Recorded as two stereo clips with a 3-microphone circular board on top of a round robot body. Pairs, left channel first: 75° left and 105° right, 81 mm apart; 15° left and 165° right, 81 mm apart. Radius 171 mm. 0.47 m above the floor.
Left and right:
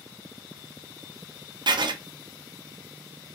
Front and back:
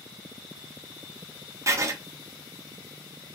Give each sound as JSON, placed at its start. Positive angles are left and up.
{"t": 1.7, "sound": "writing", "azimuth_deg": -115, "distance_m": 0.7}